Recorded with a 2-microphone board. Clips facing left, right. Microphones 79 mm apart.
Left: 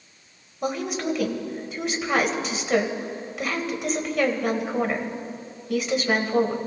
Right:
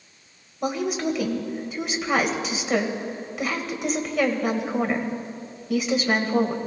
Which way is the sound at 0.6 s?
Centre (ahead or behind).